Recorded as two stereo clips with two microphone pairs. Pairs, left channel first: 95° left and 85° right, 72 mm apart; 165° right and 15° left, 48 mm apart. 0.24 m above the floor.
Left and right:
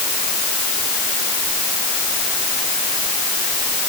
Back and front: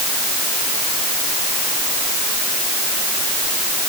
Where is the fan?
I don't hear a fan.